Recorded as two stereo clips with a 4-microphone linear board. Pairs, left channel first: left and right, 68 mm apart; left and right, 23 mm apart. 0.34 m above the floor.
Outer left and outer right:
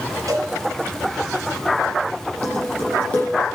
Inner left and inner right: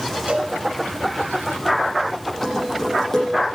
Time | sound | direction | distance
0.3 | a cowbell | 65° right (ahead or behind) | 3.5 m
2.4 | dishes clattering | 20° left (ahead or behind) | 7.5 m